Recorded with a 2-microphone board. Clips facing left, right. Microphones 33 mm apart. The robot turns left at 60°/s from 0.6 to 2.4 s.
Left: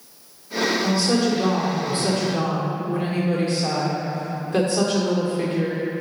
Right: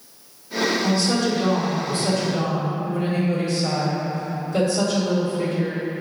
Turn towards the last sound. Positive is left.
turn(degrees=100)